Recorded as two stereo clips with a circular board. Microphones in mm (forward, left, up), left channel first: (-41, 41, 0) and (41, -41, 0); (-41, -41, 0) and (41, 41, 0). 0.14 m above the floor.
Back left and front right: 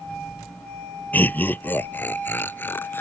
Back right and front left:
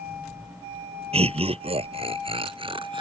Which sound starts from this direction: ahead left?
Laughter, at 1.1 s.